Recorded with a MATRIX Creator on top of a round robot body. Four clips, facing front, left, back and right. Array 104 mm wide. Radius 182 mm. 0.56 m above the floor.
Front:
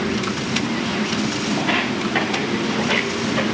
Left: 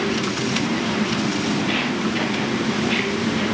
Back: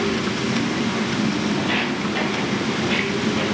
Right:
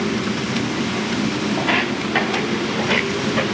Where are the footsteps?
70° right, 5.5 m; by 3.5 s 60° right, 5 m.